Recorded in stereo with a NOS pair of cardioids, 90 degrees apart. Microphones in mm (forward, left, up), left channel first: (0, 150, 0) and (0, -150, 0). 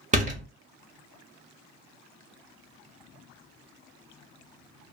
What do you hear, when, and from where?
0.1 s a door slam: 25° right, 1.1 m